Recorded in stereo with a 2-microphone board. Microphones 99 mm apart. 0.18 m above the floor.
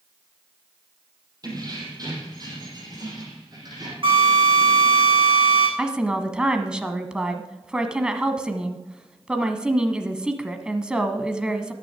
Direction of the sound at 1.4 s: 40° right (ahead or behind).